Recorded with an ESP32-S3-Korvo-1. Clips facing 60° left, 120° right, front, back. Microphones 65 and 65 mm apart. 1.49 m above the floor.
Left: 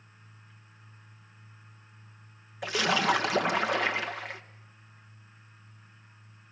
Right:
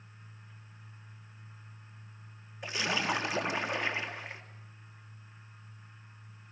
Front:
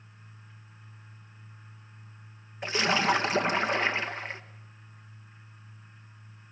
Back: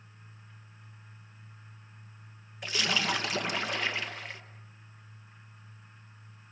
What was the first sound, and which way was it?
A splash, 60° left.